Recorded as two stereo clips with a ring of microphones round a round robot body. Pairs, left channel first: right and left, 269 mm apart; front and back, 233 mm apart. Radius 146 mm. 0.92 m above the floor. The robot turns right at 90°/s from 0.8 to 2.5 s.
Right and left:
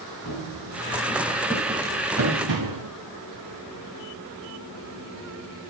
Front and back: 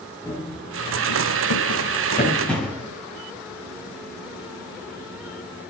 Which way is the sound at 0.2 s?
75° right.